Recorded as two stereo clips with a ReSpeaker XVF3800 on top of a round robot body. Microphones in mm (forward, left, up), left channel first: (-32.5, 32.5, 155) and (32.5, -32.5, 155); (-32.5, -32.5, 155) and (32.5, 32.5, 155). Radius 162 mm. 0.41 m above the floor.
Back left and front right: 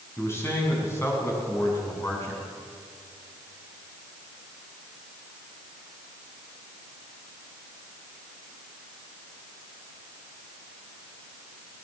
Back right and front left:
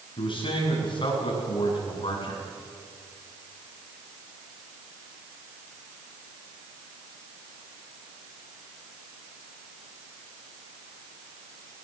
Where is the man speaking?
165° right, 6 m.